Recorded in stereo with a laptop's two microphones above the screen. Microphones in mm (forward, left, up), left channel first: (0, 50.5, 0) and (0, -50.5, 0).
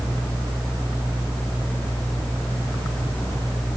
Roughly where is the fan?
Centre.